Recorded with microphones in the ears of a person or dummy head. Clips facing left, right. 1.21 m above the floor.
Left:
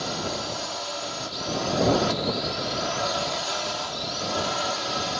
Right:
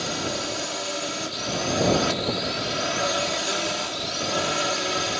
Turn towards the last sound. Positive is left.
turn(degrees=-35)  # may be behind; listen again after turning